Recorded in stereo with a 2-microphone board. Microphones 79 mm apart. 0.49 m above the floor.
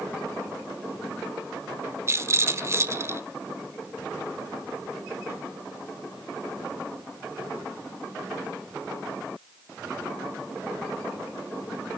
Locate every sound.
2.1 s a rattle: 35° right (ahead or behind), 1.0 m